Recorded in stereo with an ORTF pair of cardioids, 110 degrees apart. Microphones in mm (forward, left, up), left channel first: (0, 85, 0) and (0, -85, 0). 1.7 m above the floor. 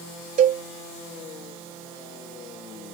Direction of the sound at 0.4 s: 55° right.